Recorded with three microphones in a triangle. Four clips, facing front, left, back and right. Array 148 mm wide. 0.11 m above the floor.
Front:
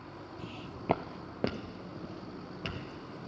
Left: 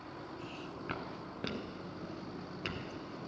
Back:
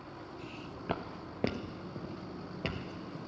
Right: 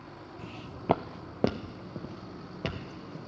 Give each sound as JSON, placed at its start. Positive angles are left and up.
{"t": 0.4, "sound": "footsteps", "azimuth_deg": -40, "distance_m": 0.7}